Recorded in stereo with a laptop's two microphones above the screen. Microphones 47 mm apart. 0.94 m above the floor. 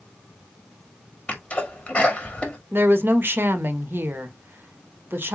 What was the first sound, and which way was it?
A sneeze, 25° left (ahead or behind).